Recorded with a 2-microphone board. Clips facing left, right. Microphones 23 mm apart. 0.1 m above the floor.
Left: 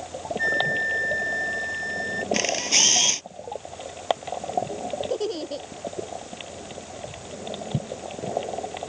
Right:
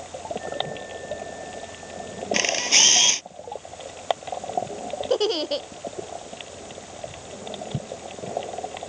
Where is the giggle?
45° right (ahead or behind).